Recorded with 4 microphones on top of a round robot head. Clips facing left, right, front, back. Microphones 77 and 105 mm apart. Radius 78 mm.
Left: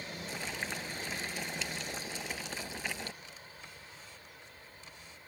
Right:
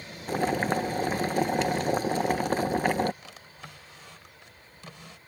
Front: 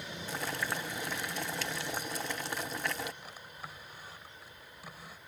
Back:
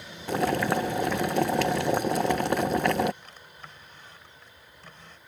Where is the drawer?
80° right.